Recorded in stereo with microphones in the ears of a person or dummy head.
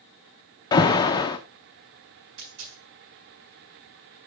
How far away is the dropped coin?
About 4 m.